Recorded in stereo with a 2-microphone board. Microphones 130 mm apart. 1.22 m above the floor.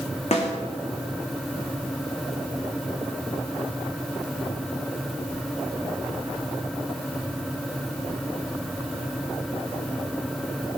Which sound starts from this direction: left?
A snare drum, at 0.3 s.